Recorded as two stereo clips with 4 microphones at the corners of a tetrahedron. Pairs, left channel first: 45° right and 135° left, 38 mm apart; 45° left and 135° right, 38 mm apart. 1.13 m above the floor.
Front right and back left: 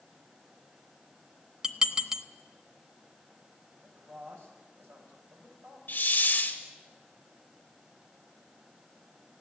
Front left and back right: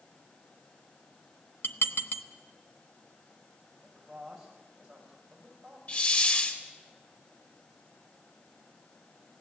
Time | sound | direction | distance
1.6 | dishes clattering | 65° left | 1.1 m
3.8 | a man speaking | 140° left | 6.5 m
5.9 | a hiss | 5° right | 2 m